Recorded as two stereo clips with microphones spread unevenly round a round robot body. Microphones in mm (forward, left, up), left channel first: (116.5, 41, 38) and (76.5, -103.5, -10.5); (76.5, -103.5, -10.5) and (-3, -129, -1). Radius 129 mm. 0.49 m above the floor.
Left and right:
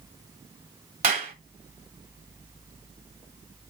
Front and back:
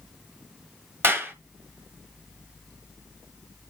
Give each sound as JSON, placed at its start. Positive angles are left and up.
{"t": 1.0, "sound": "a clap", "azimuth_deg": -100, "distance_m": 1.8}